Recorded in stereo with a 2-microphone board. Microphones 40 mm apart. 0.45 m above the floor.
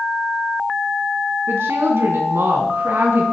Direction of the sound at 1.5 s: 75° right (ahead or behind).